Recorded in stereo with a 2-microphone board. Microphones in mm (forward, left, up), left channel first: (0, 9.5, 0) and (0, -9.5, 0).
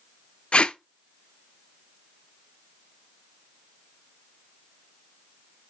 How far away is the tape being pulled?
About 0.7 m.